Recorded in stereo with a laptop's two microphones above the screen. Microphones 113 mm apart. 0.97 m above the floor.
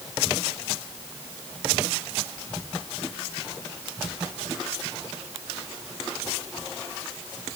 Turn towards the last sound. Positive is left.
No sound to turn to.